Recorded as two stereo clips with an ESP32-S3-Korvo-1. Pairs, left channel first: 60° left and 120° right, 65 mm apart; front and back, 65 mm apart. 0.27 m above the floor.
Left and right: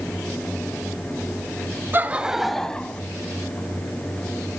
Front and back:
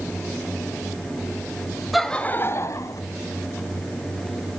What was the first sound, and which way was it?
Laughter, 90° right.